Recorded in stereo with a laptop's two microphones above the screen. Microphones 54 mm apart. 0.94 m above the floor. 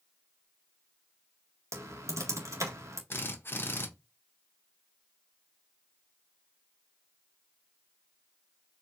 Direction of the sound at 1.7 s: 85° right.